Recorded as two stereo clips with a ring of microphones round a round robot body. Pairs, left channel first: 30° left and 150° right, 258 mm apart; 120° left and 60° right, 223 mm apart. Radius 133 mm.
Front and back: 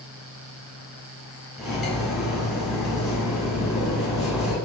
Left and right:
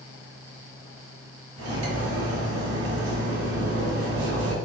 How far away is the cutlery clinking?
About 1.3 m.